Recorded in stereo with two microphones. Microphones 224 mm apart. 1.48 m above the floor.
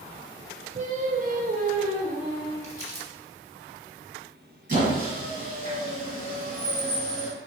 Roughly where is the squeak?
Right.